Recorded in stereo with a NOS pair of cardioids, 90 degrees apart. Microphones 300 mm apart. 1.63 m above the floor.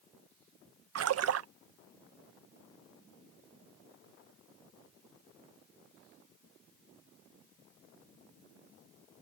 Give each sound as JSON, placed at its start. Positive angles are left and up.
{"t": 0.9, "sound": "a splash", "azimuth_deg": -55}